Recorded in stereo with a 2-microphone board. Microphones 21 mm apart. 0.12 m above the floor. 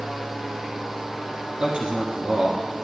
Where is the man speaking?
50° right (ahead or behind), 1.6 m.